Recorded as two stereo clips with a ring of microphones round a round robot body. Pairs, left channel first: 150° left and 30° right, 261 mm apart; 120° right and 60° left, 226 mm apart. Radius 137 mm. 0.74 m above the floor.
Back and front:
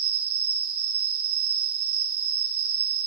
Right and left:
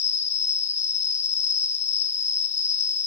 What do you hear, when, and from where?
0.0 s an insect: 60° right, 1.3 m